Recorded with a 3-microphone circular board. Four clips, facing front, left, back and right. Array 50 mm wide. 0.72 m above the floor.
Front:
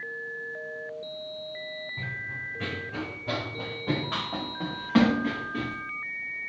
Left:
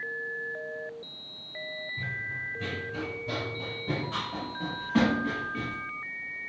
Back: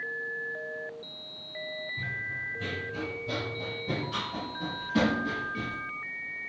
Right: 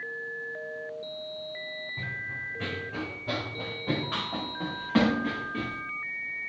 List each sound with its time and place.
2.0 s running footsteps: 50° right, 3 m; by 5.8 s 30° right, 5.5 m